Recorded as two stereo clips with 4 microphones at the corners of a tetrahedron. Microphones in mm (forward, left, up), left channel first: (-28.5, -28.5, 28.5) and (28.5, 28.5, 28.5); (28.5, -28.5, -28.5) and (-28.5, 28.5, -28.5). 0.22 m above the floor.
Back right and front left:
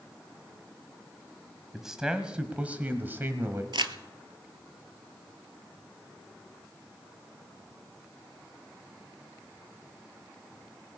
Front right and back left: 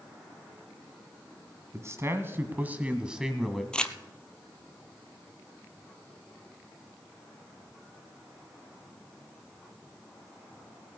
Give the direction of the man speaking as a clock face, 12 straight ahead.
8 o'clock.